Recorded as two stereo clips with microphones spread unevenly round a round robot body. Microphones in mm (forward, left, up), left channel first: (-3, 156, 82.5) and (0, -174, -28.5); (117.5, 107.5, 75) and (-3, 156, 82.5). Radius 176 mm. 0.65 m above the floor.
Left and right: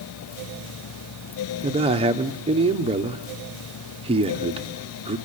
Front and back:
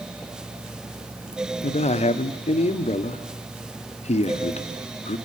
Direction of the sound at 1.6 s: 30° right.